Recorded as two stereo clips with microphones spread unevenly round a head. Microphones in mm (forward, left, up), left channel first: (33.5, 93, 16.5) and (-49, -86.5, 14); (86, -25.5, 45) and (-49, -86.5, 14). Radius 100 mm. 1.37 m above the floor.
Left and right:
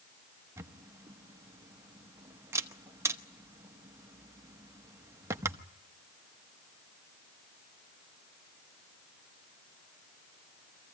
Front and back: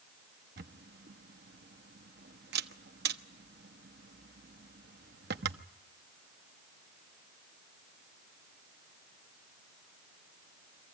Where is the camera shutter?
170° left, 0.9 m.